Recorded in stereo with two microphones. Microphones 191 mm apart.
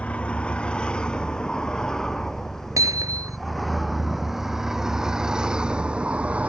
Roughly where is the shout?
I don't hear a shout.